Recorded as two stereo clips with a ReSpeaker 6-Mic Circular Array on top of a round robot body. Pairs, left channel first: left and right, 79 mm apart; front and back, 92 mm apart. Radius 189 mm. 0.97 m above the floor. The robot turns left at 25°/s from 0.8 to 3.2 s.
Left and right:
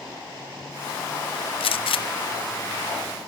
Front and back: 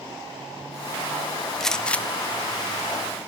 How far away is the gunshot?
About 1.1 m.